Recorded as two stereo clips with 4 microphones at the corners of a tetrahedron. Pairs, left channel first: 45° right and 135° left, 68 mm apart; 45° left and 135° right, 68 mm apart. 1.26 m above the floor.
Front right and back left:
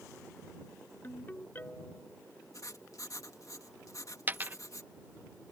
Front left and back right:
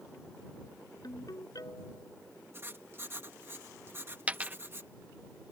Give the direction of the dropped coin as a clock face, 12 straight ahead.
6 o'clock.